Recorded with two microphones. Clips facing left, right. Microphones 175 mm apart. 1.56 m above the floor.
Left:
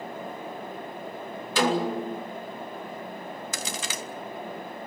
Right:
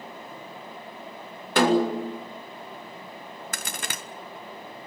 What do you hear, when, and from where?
1.6 s a snare drum: 60° right (ahead or behind), 4 m
3.5 s a crack: 55° right (ahead or behind), 1.5 m